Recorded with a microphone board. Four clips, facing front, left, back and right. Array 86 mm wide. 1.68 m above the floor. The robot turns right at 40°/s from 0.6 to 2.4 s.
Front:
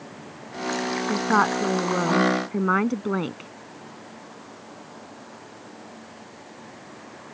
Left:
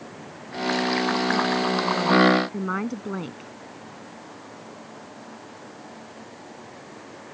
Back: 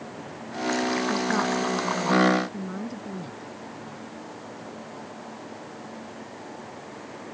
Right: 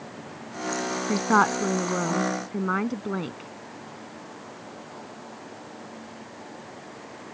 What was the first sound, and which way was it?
A woman speaking, 60° right.